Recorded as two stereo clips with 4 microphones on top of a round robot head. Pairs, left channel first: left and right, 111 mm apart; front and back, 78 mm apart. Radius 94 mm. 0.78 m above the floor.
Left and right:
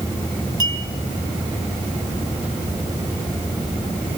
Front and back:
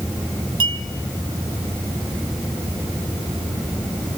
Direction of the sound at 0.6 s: 150° right.